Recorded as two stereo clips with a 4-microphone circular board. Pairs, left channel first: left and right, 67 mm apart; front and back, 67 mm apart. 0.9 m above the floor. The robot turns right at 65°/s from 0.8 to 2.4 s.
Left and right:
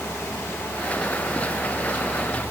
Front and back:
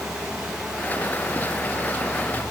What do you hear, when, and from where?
Only background noise.